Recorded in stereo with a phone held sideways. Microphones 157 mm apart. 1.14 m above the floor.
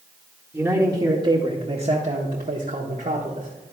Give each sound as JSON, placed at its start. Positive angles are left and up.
{"t": 0.5, "sound": "a man speaking", "side_deg": -10, "distance_m": 1.2}